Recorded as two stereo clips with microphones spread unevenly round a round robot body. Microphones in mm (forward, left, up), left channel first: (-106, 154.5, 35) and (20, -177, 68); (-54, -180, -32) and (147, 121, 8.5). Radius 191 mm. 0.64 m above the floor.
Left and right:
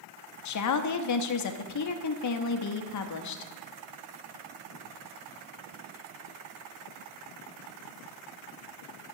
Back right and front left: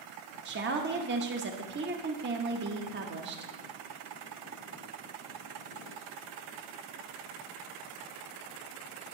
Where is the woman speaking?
120° left, 0.8 m.